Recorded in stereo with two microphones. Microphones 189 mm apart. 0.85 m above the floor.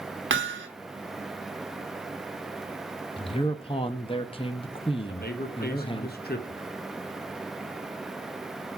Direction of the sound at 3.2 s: 25° left (ahead or behind).